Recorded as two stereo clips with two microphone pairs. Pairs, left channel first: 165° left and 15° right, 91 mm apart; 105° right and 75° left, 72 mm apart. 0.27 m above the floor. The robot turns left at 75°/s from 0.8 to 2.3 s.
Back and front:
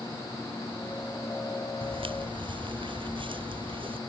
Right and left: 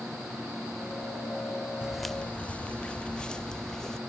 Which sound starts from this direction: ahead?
Footsteps, at 1.8 s.